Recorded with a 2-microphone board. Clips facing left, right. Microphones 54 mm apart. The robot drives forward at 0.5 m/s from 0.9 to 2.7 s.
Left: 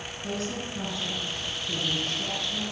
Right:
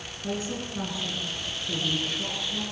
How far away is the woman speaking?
About 8.5 m.